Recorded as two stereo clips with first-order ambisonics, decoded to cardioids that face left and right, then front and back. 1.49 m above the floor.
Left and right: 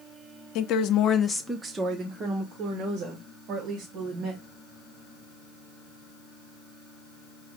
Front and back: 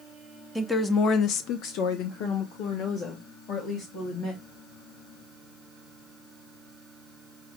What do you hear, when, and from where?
0.6 s a woman speaking: 90° left, 0.7 m; by 4.5 s 45° right, 2.5 m